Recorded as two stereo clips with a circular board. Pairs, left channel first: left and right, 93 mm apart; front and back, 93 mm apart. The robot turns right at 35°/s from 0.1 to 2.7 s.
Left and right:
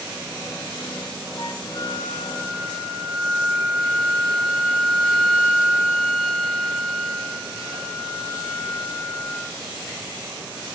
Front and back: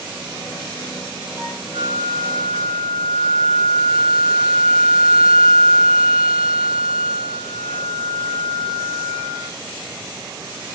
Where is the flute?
120° left, 5.5 m; by 9.5 s 165° left, 5.5 m.